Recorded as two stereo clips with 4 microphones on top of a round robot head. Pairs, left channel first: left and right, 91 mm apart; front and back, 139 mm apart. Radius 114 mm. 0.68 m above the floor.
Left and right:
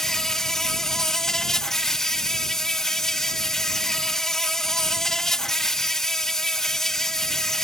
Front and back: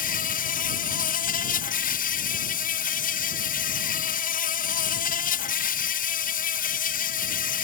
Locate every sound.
0.0 s an insect: 5° left